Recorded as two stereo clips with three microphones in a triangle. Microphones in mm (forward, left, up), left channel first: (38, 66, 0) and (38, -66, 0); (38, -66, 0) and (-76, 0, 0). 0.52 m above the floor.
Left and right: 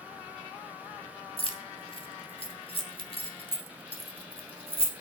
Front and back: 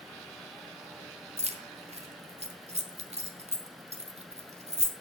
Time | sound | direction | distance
1.4 | keys jangling | 130° left | 0.8 m